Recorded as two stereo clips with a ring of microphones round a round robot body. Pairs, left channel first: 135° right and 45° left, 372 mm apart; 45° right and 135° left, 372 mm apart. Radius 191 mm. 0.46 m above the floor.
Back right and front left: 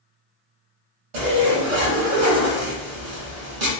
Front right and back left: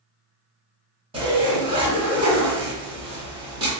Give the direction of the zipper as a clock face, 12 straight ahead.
10 o'clock.